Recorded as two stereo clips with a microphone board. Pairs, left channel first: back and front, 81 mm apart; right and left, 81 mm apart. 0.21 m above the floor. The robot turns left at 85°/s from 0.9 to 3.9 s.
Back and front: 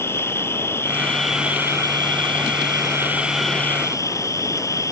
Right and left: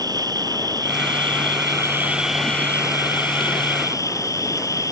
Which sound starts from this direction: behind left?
An insect, at 0.0 s.